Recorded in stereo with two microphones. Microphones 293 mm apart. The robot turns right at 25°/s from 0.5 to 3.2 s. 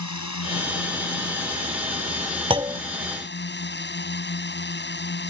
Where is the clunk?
15° right (ahead or behind); by 2.8 s 10° right (ahead or behind).